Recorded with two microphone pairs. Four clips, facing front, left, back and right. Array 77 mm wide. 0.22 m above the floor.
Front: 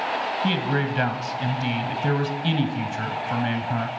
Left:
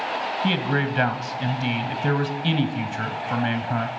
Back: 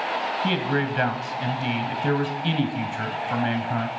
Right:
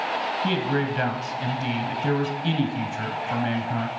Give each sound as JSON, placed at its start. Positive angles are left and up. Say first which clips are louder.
{"t": 0.4, "sound": "a man speaking", "louder": "left 2 dB, back 1 dB", "azimuth_deg": 110, "distance_m": 1.0}